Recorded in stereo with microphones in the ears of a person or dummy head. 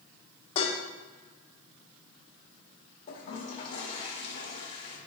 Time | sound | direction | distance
0.6 | dishes clattering | 30° left (ahead or behind) | 1.1 m
3.1 | a toilet flushing | 40° left (ahead or behind) | 1.7 m